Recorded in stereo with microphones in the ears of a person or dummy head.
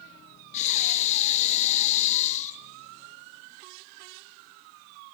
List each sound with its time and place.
0.5 s breathing: 35° left (ahead or behind), 0.7 m